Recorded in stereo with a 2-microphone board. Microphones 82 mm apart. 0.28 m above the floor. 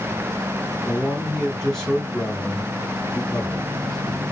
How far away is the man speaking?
About 3 m.